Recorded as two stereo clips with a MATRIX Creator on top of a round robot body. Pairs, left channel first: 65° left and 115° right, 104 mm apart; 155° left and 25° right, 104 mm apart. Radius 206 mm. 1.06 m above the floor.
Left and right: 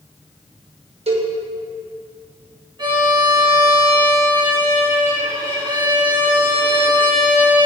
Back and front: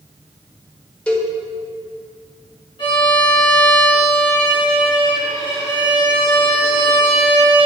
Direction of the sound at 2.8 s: 165° right.